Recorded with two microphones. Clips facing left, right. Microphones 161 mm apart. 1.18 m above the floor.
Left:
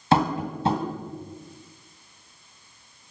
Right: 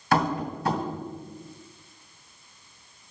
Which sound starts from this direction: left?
Tapping, at 0.1 s.